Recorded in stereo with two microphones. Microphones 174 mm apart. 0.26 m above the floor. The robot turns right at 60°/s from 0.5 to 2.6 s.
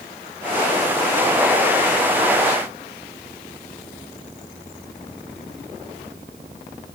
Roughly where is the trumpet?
No trumpet in this recording.